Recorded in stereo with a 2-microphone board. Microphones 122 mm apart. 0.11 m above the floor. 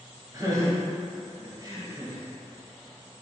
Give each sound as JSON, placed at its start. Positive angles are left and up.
{"t": 0.3, "sound": "laughter", "side_deg": -30, "distance_m": 1.5}